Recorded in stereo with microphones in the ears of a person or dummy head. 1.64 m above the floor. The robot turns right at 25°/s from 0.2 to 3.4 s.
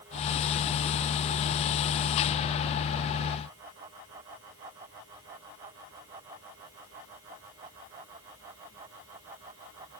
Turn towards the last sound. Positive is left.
No sound to turn to.